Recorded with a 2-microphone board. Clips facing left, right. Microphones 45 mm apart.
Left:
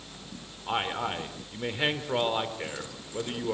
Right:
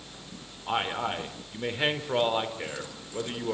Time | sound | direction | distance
0.7 | a man speaking | centre (ahead or behind) | 4 m